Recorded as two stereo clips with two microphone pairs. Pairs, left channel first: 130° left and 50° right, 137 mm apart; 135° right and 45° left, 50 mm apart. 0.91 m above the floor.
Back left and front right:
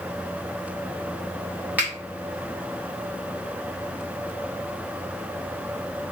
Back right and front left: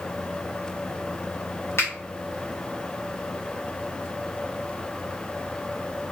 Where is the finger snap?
125° right, 2 m.